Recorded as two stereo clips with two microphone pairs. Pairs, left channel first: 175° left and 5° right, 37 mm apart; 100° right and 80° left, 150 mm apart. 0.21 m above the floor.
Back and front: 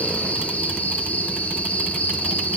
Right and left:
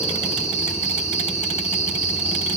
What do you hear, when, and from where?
0.0 s an insect: 140° right, 5 m